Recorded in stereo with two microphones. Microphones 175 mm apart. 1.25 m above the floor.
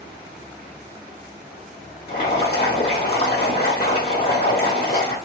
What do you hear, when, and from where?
2.1 s boiling: 60° left (ahead or behind), 1.4 m